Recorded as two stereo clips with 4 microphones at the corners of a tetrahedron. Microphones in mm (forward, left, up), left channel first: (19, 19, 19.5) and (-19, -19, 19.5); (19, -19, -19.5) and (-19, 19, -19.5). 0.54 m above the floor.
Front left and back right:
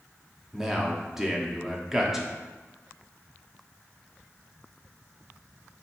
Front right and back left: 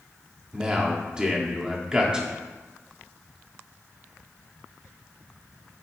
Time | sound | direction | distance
0.5 | a man speaking | 160° left | 0.7 m